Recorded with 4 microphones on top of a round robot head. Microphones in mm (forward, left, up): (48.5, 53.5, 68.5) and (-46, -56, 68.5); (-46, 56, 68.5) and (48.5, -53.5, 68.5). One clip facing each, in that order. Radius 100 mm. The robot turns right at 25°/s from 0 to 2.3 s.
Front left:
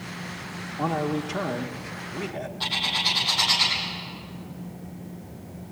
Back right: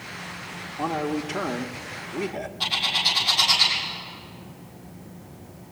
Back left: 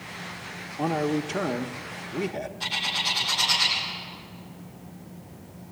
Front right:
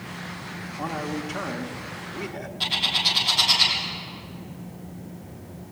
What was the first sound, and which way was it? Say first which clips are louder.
A man speaking: even, back left 5 dB; 130° left.